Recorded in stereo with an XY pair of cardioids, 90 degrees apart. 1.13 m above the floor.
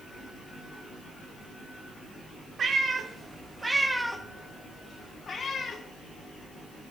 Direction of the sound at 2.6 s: 50° right.